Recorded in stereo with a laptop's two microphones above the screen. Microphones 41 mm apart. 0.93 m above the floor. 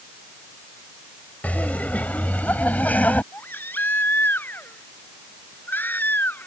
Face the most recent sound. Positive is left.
turn(degrees=55)  # may be behind; listen again after turning